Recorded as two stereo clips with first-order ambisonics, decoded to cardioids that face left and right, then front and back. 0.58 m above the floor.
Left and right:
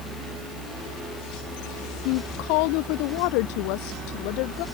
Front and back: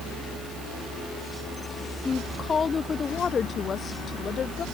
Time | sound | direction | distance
2.0 | a woman speaking | 75° left | ?